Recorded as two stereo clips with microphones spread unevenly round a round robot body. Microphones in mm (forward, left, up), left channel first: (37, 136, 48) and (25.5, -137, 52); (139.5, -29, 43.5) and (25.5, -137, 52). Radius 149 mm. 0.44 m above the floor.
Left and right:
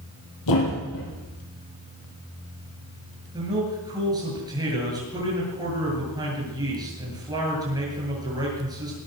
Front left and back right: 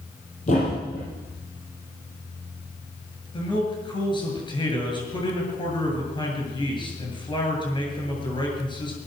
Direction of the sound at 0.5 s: 105° left.